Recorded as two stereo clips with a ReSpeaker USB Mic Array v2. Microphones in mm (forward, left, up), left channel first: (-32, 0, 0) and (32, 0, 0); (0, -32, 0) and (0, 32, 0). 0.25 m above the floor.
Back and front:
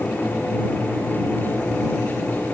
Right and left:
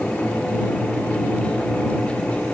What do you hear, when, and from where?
Only background noise.